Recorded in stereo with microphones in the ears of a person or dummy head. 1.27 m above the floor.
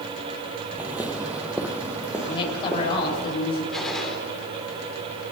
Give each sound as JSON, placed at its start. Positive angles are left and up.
{"t": 0.8, "sound": "footsteps", "side_deg": -10, "distance_m": 1.6}
{"t": 2.2, "sound": "a woman speaking", "side_deg": 30, "distance_m": 5.5}
{"t": 3.7, "sound": "a gunshot", "side_deg": 0, "distance_m": 3.5}